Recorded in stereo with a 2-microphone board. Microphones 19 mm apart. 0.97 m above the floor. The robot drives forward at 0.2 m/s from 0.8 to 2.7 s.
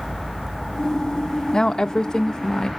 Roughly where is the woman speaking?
Left.